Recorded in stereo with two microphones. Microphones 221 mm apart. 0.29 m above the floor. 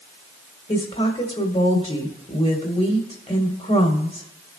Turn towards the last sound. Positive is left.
turn(degrees=25)  # may be behind; listen again after turning